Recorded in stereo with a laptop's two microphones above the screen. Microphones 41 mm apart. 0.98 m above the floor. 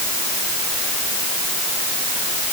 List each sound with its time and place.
Only background noise.